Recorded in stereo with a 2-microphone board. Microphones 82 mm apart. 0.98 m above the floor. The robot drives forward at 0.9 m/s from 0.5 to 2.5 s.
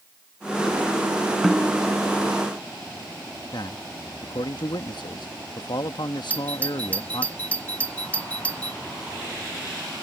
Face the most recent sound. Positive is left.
turn(degrees=20)  # may be behind; listen again after turning